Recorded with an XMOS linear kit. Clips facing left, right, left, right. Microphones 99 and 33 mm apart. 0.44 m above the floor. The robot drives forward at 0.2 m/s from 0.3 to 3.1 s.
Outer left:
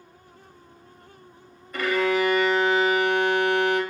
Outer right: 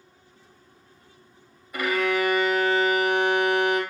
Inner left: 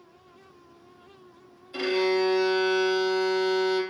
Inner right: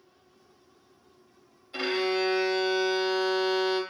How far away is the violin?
About 0.7 m.